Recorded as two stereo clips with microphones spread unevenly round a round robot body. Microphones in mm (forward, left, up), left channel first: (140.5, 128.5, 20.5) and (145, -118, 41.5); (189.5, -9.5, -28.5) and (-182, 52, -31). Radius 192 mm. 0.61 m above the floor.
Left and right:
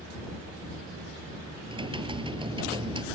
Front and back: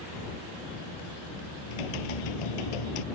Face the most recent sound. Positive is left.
turn(degrees=-20)